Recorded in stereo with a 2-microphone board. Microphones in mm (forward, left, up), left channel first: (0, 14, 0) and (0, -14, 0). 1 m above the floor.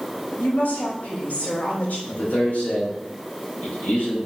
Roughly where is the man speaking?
Left.